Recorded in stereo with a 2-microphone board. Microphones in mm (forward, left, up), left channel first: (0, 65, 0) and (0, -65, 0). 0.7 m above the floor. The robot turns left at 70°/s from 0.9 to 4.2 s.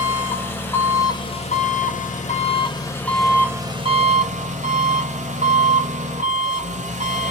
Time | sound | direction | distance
0.0 | an engine running | 165° left | 1.1 m